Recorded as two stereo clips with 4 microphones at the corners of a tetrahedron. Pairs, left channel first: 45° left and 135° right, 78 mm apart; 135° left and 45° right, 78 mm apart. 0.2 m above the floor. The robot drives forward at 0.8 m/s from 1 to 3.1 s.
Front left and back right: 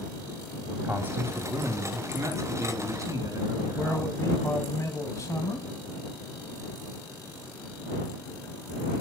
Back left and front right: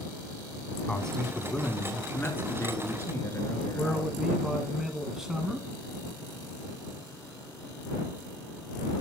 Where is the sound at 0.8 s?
150° right, 1.4 m; by 4.2 s 175° right, 2.5 m.